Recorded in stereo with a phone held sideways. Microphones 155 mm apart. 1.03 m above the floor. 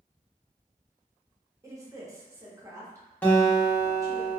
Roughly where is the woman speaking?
Right.